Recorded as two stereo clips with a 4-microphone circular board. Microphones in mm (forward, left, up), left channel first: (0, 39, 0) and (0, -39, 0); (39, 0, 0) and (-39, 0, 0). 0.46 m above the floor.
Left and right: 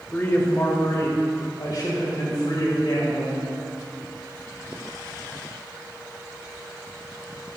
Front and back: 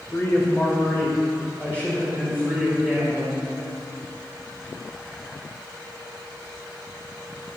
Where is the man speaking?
35° left, 1.5 m; by 3.5 s 80° left, 4.5 m.